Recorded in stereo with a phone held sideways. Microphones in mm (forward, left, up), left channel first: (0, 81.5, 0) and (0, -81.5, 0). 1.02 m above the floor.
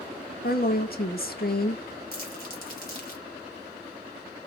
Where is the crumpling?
60° left (ahead or behind), 1.4 m.